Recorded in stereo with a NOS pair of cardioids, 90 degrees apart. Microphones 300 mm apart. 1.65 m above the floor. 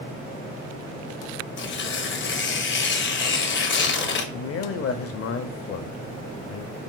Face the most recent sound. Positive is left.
turn(degrees=50)